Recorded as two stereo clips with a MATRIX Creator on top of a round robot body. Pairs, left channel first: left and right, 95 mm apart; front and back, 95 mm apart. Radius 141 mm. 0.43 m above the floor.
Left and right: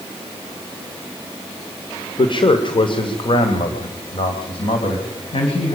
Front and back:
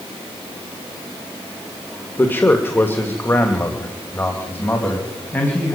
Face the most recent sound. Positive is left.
turn(degrees=70)